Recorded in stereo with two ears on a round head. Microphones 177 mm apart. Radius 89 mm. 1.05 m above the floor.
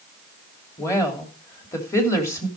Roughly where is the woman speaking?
Centre.